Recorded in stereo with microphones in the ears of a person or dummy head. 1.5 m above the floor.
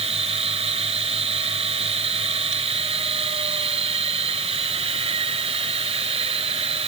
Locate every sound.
0.0 s a machine running: 30° right (ahead or behind)